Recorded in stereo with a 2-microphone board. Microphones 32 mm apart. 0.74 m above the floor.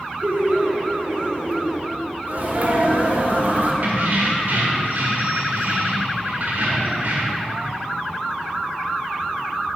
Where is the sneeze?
55° right (ahead or behind), 1.9 m.